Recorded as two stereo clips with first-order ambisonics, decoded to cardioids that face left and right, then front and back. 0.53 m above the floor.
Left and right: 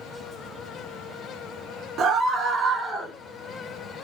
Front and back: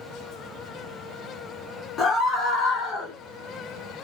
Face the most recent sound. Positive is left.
turn(degrees=-5)